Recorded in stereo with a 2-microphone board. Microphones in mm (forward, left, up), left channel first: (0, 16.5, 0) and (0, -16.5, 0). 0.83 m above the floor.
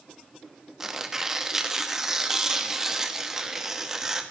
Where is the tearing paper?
15° right (ahead or behind), 1.0 m.